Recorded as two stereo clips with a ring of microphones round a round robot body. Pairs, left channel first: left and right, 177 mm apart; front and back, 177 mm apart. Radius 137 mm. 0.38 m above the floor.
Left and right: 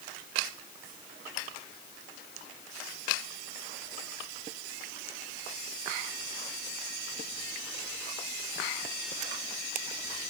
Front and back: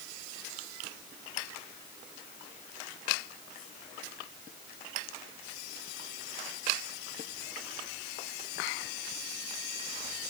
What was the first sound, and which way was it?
Only background noise.